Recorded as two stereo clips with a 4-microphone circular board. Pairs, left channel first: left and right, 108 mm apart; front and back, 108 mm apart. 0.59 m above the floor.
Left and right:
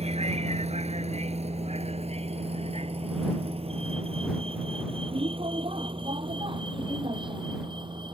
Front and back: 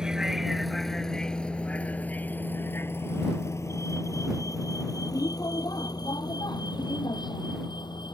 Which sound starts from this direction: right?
A vehicle, at 0.0 s.